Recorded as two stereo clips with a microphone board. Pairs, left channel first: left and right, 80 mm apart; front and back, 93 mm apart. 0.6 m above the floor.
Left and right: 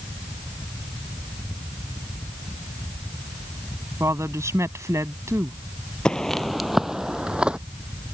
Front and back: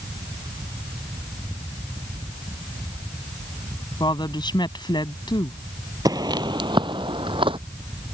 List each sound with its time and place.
4.0 s a woman speaking: 35° right
6.0 s footsteps: 165° left; by 7.6 s 165° right